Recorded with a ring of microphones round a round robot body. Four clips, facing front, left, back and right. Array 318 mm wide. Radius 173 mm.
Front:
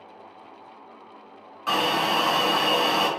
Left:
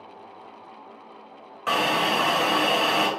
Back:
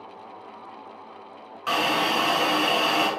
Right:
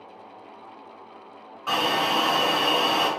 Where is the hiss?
100° left, 3 m.